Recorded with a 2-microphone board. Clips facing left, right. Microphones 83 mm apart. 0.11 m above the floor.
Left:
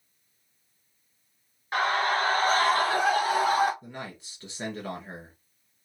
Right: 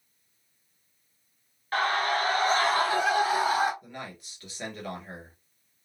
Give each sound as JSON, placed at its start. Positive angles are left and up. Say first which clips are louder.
{"t": 1.7, "sound": "a scream", "louder": "left 1 dB", "side_deg": 15, "distance_m": 1.2}
{"t": 3.8, "sound": "a man speaking", "louder": "left 1 dB", "side_deg": 25, "distance_m": 1.4}